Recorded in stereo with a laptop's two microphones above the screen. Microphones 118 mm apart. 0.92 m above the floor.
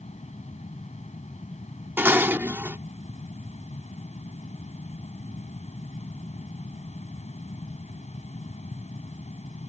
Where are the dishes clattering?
20° right (ahead or behind).